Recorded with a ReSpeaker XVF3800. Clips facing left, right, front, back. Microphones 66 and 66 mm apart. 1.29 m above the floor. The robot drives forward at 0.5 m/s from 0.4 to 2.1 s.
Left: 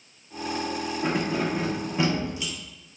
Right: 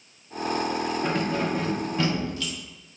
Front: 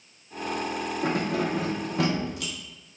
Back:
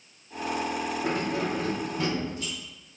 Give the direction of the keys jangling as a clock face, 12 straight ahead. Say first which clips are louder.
Left 3 dB, front 4 dB; 12 o'clock.